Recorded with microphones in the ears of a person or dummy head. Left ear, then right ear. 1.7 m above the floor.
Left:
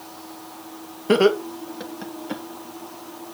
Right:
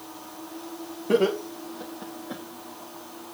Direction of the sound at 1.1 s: 60° left (ahead or behind).